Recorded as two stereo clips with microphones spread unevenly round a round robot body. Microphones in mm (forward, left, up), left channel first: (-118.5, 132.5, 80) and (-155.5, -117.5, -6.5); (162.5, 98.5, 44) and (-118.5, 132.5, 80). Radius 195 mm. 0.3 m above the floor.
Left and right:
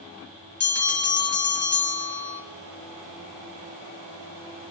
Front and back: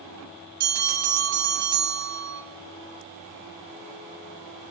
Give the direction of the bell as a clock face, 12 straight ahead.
7 o'clock.